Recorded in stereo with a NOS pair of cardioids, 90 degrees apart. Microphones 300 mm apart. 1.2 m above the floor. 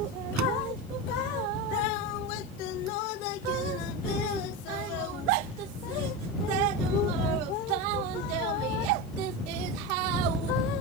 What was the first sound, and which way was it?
A door slam, 65° right.